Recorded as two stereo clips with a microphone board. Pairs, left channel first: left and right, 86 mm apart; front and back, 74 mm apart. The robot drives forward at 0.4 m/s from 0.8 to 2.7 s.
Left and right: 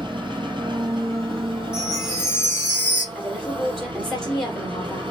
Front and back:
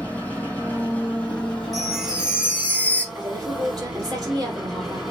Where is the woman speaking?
Straight behind, 2.5 m.